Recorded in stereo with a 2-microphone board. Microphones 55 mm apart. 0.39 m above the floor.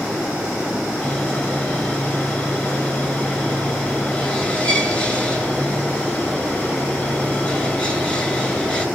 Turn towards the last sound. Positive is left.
turn(degrees=20)  # may be behind; listen again after turning